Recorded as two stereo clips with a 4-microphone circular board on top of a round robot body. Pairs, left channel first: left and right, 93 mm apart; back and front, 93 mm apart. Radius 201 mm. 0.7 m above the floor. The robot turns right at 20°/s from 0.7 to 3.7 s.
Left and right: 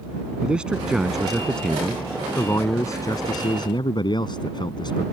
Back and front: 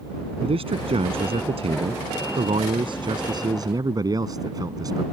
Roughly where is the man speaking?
Ahead.